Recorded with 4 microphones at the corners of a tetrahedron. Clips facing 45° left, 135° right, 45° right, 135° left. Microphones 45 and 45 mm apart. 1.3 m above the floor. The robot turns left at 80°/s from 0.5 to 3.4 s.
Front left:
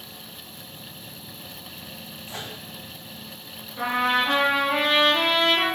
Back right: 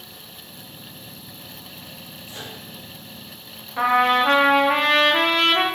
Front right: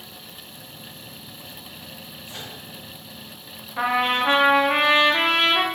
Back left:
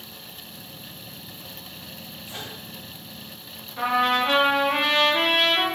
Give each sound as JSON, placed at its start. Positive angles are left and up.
{"t": 2.3, "sound": "a microwave", "azimuth_deg": 65, "distance_m": 1.8}
{"t": 3.8, "sound": "a trumpet", "azimuth_deg": -100, "distance_m": 0.6}